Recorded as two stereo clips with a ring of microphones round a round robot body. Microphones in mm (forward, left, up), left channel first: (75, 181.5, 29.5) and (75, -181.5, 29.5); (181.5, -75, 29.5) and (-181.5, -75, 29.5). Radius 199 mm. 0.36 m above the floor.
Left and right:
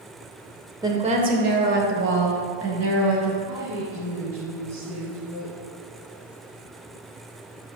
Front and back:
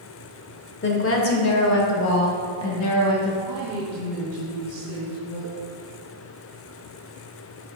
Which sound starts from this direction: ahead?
A woman speaking, at 0.8 s.